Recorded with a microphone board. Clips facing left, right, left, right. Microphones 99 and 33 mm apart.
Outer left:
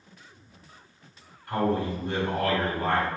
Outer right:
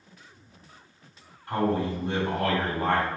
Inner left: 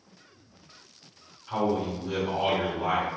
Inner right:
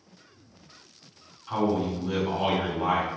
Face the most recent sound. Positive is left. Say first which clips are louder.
# even, inner right 1 dB
turn(degrees=-25)  # may be behind; listen again after turning